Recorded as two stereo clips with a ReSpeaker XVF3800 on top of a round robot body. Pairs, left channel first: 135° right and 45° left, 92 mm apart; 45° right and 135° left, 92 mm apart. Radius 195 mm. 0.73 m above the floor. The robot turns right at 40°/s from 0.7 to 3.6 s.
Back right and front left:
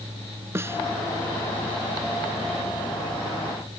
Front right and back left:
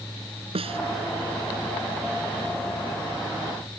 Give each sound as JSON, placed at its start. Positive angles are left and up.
{"t": 0.6, "sound": "a snare drum", "azimuth_deg": 110}